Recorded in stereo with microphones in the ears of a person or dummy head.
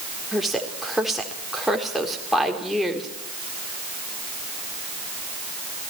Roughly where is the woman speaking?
Centre.